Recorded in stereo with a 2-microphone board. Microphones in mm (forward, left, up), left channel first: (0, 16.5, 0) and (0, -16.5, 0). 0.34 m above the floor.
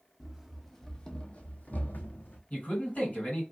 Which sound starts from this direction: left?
A man speaking, at 2.5 s.